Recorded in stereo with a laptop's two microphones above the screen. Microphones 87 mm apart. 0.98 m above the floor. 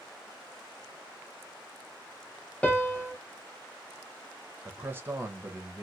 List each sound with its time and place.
2.6 s a piano: 15° left (ahead or behind), 0.8 m
4.7 s a man speaking: 25° right (ahead or behind), 0.7 m